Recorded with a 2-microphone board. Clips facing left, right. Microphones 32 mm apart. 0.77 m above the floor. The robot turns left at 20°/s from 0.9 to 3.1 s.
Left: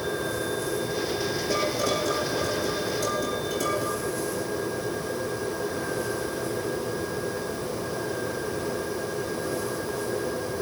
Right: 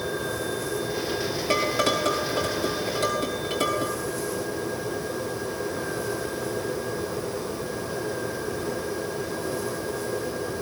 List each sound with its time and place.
1.5 s dishes clattering: 90° right, 5 m; by 4.0 s 55° right (ahead or behind), 5 m